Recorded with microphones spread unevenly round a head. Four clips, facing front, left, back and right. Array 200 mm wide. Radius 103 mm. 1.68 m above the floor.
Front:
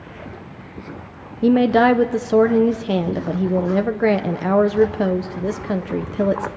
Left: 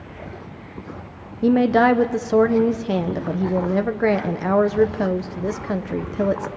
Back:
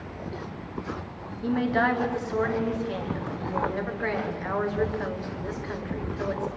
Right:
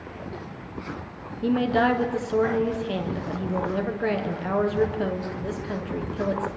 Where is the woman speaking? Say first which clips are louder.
Left 6 dB, front 10 dB; 25° left, 1.1 m.